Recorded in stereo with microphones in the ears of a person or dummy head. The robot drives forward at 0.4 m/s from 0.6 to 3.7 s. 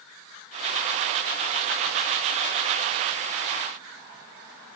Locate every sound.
Only background noise.